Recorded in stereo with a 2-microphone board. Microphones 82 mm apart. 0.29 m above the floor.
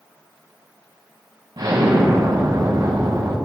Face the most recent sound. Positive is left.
turn(degrees=-55)  # may be behind; listen again after turning